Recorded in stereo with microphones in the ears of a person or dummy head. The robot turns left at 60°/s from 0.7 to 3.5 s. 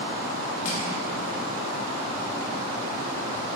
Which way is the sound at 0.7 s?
50° left (ahead or behind).